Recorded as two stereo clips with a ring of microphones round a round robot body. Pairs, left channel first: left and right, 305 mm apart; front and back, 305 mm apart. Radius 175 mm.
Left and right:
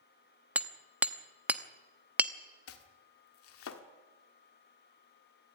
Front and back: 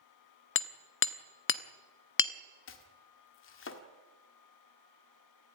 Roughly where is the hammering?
Ahead.